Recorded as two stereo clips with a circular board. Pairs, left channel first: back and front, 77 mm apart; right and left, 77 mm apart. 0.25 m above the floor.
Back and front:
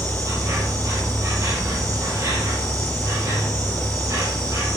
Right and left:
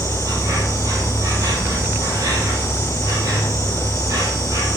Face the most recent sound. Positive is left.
turn(degrees=45)